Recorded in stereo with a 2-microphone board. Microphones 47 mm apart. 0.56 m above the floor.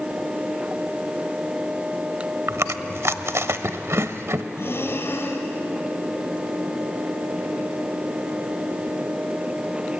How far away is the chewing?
About 1.0 m.